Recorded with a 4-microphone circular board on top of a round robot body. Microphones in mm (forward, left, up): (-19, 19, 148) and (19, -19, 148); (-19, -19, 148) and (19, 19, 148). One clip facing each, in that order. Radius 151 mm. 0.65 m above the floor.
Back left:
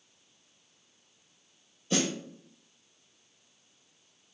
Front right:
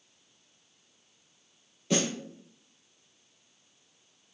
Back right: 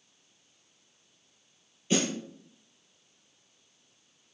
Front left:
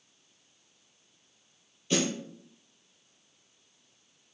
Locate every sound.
1.9 s a snare drum: 60° right, 4.5 m